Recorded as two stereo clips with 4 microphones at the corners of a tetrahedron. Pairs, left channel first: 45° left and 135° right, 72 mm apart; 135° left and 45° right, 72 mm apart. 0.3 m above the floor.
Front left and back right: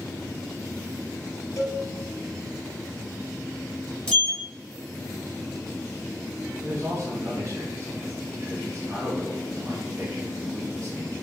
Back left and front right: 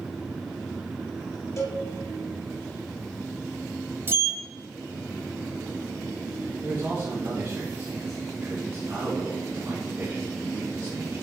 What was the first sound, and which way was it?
A cowbell, 90° left.